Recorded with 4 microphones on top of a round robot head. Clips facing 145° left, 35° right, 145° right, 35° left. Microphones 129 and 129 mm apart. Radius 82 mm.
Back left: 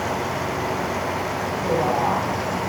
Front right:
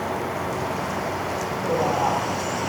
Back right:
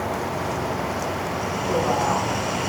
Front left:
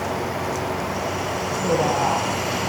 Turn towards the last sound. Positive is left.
turn(degrees=50)